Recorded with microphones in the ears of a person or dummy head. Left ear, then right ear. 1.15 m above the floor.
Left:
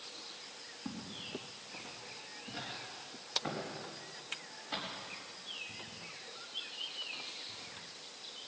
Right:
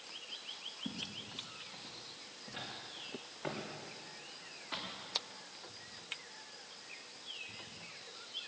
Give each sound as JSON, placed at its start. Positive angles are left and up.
{"t": 0.8, "sound": "footsteps", "side_deg": -15, "distance_m": 2.5}